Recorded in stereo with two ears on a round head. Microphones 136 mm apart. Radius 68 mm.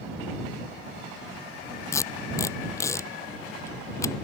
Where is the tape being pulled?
15° left (ahead or behind).